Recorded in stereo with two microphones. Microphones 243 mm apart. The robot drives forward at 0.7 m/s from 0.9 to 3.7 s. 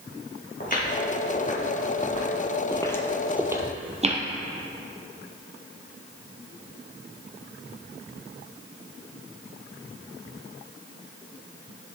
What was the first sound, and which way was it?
Footsteps, 35° left (ahead or behind).